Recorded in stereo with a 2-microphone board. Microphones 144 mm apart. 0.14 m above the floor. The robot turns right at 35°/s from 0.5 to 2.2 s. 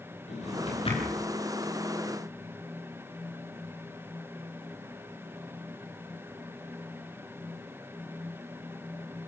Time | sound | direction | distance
0.3 | a drawer | 55° left (ahead or behind) | 10 m